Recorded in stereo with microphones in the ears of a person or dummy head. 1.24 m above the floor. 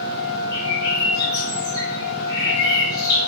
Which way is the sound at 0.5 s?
15° left (ahead or behind).